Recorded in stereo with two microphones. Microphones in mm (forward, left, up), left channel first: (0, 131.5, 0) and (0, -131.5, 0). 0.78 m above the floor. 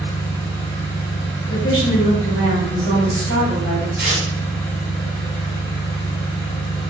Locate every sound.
0.0 s an engine running: 10° left (ahead or behind), 1.7 m
1.5 s a woman speaking: 50° left (ahead or behind), 1.9 m
4.0 s tearing paper: 50° left (ahead or behind), 1.9 m